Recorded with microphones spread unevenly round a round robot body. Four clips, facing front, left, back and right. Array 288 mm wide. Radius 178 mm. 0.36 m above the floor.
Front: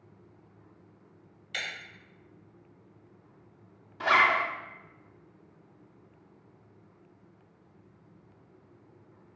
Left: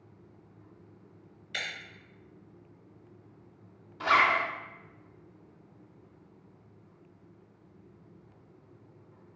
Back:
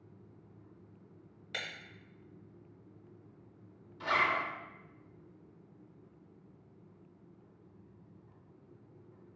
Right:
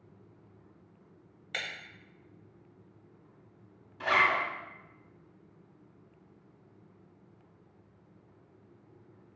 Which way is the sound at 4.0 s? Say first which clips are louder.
Left 3 dB, front 7 dB; 10° left.